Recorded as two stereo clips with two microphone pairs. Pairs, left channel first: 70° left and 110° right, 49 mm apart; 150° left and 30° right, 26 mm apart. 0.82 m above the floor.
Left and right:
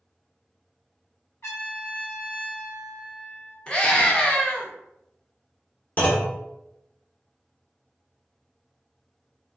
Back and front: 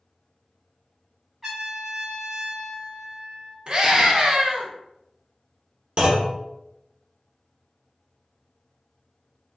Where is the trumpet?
55° left, 1.3 m.